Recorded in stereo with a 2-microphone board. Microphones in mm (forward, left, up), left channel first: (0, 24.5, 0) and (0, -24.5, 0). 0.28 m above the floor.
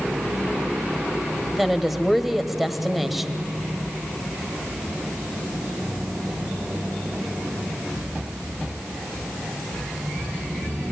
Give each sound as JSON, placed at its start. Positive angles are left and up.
{"t": 1.5, "sound": "a woman speaking", "side_deg": 0, "distance_m": 1.1}